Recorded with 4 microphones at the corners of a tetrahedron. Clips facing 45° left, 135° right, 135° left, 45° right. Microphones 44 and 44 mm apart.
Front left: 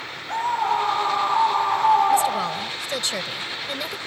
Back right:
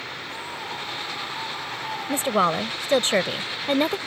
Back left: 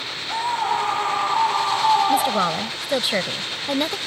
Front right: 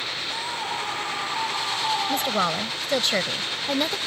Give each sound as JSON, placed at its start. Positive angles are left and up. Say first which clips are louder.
{"t": 0.3, "sound": "a scream", "louder": "front left 16 dB, back left 11 dB", "azimuth_deg": 80}
{"t": 2.1, "sound": "a woman speaking", "louder": "front left 1 dB, back left 4 dB", "azimuth_deg": -150}